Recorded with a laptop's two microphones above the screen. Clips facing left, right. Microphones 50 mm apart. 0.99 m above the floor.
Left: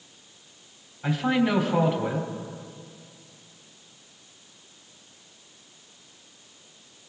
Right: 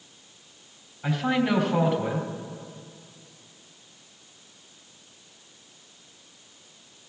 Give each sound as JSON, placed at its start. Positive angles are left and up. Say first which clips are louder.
{"t": 1.0, "sound": "a man speaking", "louder": "left 1 dB", "side_deg": -5, "distance_m": 3.0}